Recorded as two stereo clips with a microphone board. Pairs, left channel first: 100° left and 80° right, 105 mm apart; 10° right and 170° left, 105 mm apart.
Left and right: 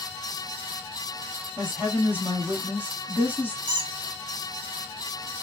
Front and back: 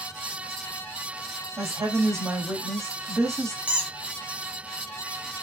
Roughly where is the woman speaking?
Behind right.